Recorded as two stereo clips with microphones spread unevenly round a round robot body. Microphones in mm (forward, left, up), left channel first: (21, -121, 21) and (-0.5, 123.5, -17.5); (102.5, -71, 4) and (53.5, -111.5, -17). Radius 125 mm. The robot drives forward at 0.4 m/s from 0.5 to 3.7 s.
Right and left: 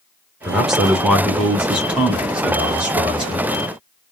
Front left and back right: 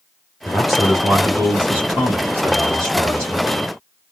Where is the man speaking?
160° left, 1.0 m; by 3.5 s 175° left, 1.8 m.